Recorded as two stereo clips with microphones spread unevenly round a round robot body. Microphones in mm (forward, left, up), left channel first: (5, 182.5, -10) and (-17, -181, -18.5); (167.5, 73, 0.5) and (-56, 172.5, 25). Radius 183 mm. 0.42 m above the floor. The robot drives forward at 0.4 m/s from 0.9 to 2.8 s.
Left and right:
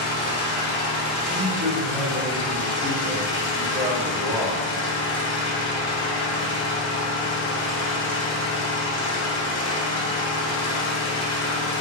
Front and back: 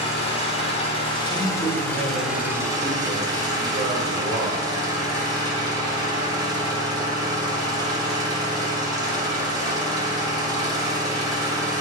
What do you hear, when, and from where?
0.0 s an engine running: 30° left, 1.2 m; by 11.8 s 85° left, 0.9 m
1.3 s a man speaking: 120° right, 1.0 m; by 4.6 s 150° right, 1.3 m